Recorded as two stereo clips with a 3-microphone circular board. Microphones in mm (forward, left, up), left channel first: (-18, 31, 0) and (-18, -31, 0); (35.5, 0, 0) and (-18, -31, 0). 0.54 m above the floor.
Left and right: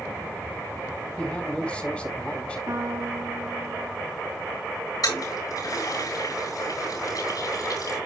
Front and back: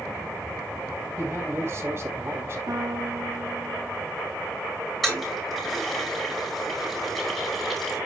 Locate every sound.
1.2 s a man speaking: 165° left, 3.5 m
2.7 s a piano: 125° right, 5 m
5.0 s a toilet flushing: 115° left, 8.5 m